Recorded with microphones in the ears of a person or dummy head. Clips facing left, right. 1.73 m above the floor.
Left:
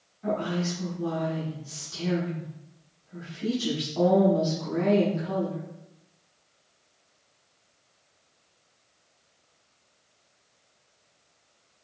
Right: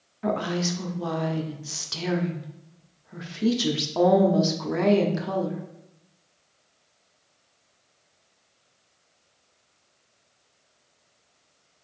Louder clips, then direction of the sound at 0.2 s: Right 2 dB; 75° right (ahead or behind).